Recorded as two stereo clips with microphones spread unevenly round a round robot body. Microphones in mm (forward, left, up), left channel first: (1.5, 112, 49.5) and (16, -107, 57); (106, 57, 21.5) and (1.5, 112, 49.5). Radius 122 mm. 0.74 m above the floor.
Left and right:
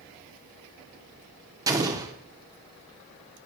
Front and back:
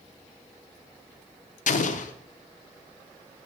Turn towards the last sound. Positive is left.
turn(degrees=-10)